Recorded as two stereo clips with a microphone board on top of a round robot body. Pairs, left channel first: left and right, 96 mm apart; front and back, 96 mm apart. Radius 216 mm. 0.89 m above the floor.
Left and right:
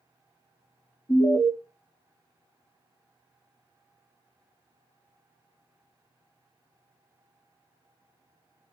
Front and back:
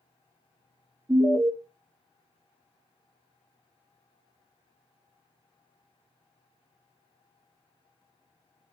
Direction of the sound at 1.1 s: 120° left.